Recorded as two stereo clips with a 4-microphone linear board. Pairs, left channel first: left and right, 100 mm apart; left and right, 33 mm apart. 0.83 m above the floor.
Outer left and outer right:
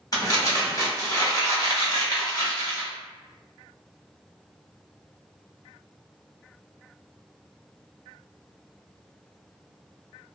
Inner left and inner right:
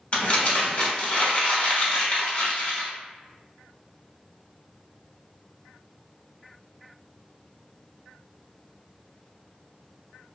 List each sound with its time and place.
0.1 s crumpling: 40° left (ahead or behind), 1.1 m